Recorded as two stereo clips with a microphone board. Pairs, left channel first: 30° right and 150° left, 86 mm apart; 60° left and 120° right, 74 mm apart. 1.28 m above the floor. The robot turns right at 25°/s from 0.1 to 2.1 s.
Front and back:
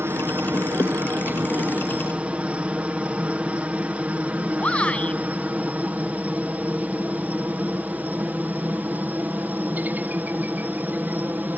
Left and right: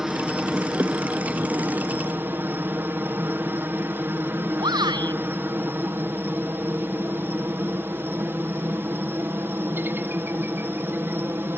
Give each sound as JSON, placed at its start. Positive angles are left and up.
{"t": 0.0, "sound": "a helicopter", "azimuth_deg": 165}
{"t": 4.6, "sound": "a shout", "azimuth_deg": -105}